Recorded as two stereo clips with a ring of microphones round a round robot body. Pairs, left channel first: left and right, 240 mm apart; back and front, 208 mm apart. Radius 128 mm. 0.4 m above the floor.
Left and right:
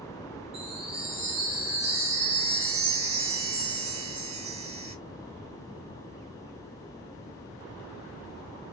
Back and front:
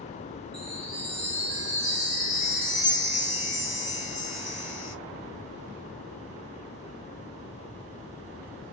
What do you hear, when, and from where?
0.5 s a chime: 30° right, 2 m